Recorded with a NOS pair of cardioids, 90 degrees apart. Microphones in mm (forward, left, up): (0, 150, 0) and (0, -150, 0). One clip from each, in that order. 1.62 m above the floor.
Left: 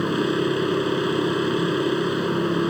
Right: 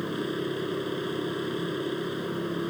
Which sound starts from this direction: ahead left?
A machine running, at 0.0 s.